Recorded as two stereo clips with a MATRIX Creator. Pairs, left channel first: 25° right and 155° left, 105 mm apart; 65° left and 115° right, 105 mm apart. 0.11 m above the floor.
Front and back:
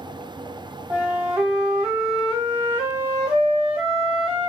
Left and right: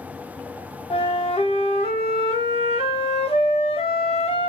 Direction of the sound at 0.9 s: 75° left.